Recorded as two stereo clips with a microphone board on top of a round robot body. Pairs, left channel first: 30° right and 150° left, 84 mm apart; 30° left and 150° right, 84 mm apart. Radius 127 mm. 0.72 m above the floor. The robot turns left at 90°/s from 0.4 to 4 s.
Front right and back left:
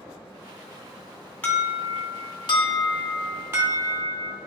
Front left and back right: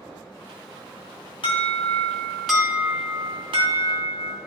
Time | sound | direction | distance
1.4 | an alarm | 40° left | 2.5 m